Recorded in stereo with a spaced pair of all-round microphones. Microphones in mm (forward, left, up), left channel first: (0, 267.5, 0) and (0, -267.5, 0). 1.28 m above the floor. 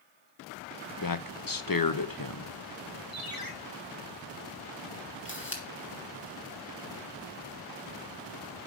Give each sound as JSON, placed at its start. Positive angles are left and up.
{"t": 1.0, "sound": "a man speaking", "side_deg": 40, "distance_m": 0.8}
{"t": 3.1, "sound": "a ringtone", "side_deg": 40, "distance_m": 1.8}
{"t": 5.2, "sound": "a camera shutter", "side_deg": 20, "distance_m": 2.5}